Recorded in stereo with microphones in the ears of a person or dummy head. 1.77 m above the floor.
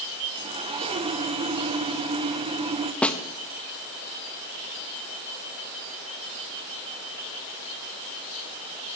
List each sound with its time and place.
0.3 s sawing: 20° right (ahead or behind), 0.7 m
3.0 s a snare drum: 5° left (ahead or behind), 0.9 m